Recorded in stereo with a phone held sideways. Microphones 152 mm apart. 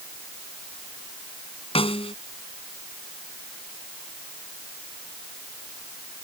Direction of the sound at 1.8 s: 40° left (ahead or behind).